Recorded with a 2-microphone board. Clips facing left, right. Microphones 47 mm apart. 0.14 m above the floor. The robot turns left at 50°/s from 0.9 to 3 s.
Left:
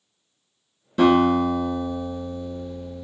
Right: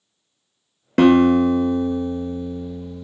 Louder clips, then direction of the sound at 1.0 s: Right 4 dB; 80° right.